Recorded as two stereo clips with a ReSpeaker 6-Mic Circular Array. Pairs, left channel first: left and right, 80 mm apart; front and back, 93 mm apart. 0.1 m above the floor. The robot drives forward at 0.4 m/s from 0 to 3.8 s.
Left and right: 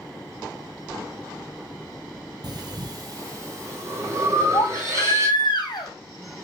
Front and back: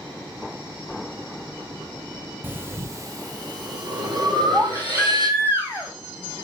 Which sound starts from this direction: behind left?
A baby crying, at 4.5 s.